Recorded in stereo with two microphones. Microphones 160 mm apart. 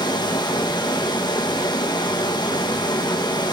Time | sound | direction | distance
0.0 | running water | 25° left (ahead or behind) | 1.1 m